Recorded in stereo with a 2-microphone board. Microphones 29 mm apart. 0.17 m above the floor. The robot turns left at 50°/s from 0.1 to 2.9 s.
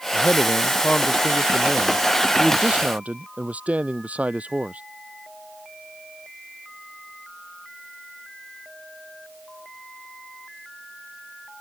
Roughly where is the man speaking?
Left.